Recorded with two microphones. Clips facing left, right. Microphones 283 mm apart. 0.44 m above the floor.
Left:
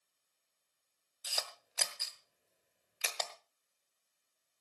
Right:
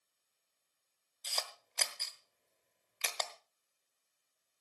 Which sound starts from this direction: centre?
A camera shutter, at 1.2 s.